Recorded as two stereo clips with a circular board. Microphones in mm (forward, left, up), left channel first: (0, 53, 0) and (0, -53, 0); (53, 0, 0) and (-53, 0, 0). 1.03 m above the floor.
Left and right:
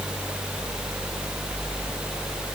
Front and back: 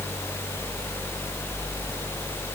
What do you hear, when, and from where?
Only background noise.